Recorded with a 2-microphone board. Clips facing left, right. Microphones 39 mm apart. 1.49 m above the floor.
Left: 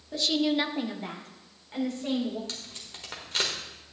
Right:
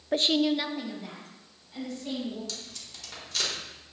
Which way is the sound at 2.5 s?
35° left (ahead or behind).